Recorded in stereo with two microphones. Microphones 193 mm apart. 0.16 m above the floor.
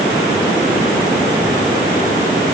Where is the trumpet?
I don't hear a trumpet.